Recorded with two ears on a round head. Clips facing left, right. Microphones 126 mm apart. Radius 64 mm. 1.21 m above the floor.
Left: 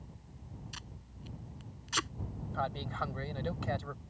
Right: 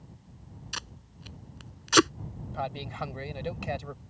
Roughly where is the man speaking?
Centre.